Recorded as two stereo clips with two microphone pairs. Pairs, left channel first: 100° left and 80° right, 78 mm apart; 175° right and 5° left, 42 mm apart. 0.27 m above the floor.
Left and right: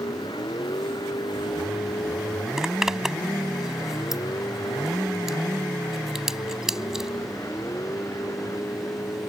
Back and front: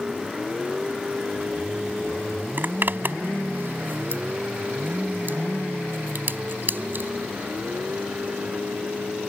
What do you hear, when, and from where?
0.0 s a vehicle: 85° left; by 9.3 s 50° left
2.6 s a zipper: 5° left